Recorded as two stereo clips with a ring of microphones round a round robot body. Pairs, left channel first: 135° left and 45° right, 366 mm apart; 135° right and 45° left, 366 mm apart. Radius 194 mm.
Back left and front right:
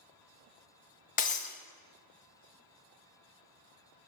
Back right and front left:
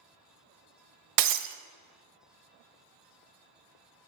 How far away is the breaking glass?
About 0.5 m.